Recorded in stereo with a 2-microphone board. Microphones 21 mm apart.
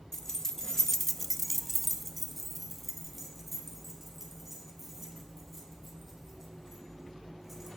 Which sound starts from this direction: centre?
Keys jangling, at 0.1 s.